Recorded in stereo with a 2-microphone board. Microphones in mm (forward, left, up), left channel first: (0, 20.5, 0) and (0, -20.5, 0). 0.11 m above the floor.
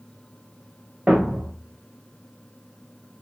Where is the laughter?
I don't hear laughter.